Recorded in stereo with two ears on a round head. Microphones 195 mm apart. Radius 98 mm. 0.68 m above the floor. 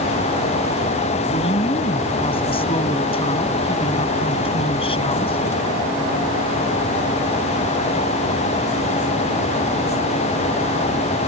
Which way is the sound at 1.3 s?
25° left (ahead or behind).